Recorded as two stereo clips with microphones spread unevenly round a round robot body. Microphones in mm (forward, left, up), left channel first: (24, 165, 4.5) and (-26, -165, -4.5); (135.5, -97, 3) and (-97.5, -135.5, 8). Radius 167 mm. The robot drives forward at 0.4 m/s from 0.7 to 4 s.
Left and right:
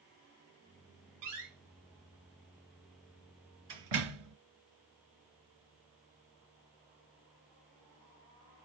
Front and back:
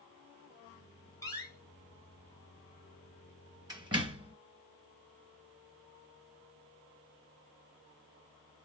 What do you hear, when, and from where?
1.2 s a door slam: 65° right, 2 m; by 4.3 s 100° right, 1.9 m